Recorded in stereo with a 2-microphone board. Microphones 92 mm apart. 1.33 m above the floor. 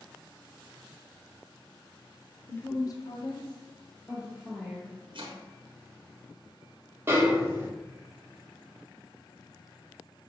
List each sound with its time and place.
2.5 s a woman speaking: 20° left (ahead or behind), 0.7 m; by 5.0 s 35° left (ahead or behind), 1.8 m
5.1 s chopping: 65° right (ahead or behind), 0.8 m
7.1 s a snare drum: 25° right (ahead or behind), 1.0 m